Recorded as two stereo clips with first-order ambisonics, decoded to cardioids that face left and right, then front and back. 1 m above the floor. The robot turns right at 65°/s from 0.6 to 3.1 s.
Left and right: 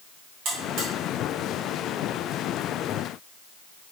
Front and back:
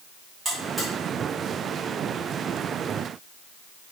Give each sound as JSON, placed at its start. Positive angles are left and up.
{"t": 0.5, "sound": "a buzzer", "azimuth_deg": -115, "distance_m": 1.2}